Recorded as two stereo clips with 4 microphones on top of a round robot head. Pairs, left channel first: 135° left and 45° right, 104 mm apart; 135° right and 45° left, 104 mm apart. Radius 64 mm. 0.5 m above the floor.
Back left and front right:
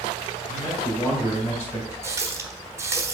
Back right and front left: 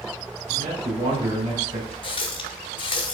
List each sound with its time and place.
0.5 s a man speaking: 50° left, 3 m; by 1.9 s 80° left, 3 m
2.0 s a running tap: 105° right, 1.2 m